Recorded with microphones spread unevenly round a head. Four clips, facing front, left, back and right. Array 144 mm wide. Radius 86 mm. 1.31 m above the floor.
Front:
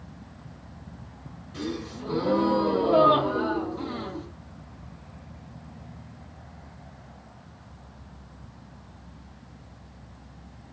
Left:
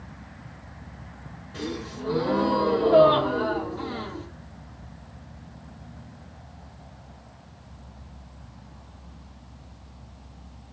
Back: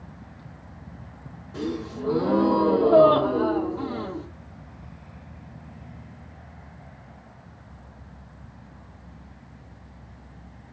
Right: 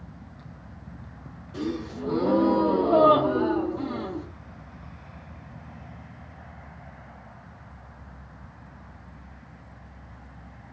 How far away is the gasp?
About 1.2 m.